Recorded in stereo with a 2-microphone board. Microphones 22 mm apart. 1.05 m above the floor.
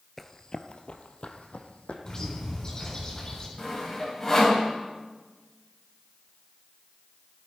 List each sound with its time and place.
0.2 s running footsteps: 10° left (ahead or behind), 1.1 m; by 1.9 s 70° left (ahead or behind), 3 m
2.0 s a bird: 30° left (ahead or behind), 7 m
3.6 s sawing: 15° left (ahead or behind), 6 m